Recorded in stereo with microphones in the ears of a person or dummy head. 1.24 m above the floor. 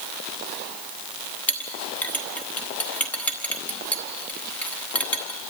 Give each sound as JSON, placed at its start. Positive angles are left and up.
{"t": 1.5, "sound": "a clink", "side_deg": 10, "distance_m": 1.2}